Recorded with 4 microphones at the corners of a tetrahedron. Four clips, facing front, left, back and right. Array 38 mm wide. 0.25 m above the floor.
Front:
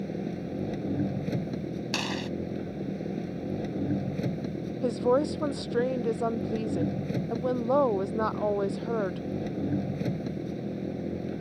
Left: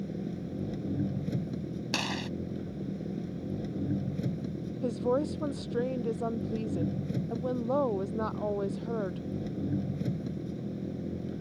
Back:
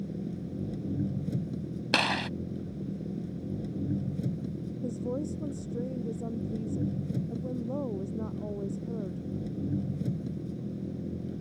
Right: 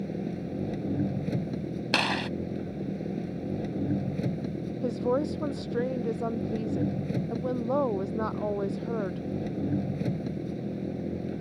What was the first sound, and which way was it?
An engine running, 30° right.